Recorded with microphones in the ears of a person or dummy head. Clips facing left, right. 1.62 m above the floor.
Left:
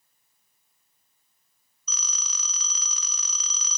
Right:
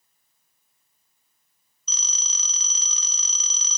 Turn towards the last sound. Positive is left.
turn(degrees=-25)  # may be behind; listen again after turning